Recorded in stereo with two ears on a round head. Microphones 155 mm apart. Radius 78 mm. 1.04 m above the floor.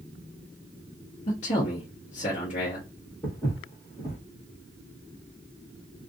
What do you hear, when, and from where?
1.3 s a man speaking: 45° left (ahead or behind), 1.2 m
3.2 s footsteps: 15° left (ahead or behind), 1.9 m